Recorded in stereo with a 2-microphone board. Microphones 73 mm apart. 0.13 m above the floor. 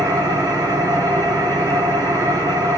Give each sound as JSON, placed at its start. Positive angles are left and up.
{"t": 0.0, "sound": "an engine running", "side_deg": -65, "distance_m": 4.0}